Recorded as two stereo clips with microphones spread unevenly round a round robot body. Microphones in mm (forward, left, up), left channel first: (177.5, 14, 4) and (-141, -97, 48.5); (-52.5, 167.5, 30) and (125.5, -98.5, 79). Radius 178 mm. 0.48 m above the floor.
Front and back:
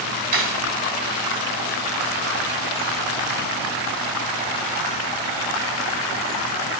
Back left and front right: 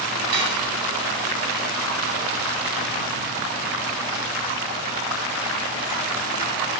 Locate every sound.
0.3 s cutlery clinking: 105° right, 2.5 m